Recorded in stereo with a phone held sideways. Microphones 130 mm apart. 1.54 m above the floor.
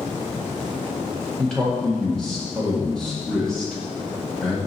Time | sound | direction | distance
1.4 | a man speaking | 5° left (ahead or behind) | 1.8 m